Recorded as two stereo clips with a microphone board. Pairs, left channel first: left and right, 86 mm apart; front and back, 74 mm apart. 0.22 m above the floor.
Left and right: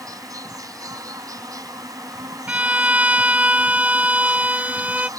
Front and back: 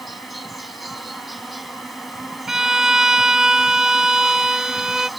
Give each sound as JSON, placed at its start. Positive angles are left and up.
{"t": 0.0, "sound": "an insect", "azimuth_deg": -90}
{"t": 2.5, "sound": "a violin", "azimuth_deg": -115}